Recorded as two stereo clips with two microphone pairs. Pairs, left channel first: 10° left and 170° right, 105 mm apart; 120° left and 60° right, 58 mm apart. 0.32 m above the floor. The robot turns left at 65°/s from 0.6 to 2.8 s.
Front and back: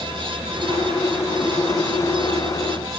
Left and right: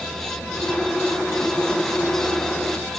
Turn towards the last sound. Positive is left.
No sound to turn to.